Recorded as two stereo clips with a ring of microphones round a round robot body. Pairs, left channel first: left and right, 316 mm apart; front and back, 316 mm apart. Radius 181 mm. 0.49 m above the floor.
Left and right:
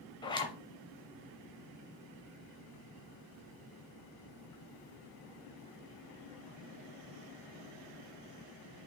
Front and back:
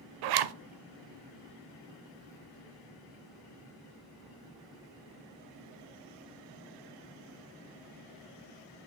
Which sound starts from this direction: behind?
A zipper, at 0.2 s.